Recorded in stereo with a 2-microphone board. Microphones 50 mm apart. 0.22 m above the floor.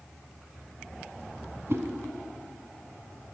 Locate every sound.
1.7 s a whoosh: 55° right (ahead or behind), 0.8 m